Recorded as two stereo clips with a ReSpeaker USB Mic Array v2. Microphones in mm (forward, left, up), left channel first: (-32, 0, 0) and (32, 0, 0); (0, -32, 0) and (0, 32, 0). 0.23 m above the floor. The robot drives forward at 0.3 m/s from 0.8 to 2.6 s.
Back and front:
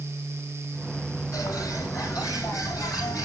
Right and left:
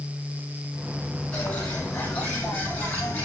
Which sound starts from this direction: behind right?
A bird, at 1.3 s.